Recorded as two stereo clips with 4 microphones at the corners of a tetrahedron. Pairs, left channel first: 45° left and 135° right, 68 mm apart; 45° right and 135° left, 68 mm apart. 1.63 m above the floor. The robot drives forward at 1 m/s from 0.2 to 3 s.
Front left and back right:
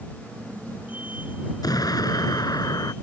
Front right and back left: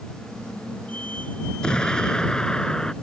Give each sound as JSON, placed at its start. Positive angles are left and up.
{"t": 1.6, "sound": "an explosion", "azimuth_deg": 30}